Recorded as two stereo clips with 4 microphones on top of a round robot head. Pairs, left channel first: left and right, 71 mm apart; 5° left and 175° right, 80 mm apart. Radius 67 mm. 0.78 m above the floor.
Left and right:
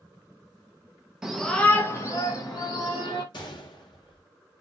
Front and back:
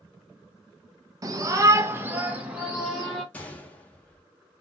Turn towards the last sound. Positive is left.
turn(degrees=80)